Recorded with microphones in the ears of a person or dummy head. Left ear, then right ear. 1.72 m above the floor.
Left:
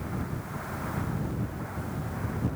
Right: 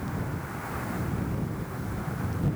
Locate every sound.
Only background noise.